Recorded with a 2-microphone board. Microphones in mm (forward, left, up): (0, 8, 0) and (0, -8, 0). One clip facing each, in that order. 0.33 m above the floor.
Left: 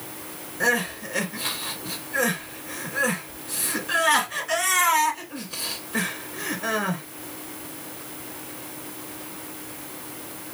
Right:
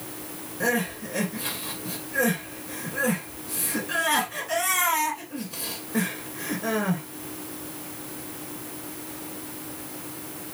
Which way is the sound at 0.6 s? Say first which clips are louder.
Left 3 dB; 35° left (ahead or behind).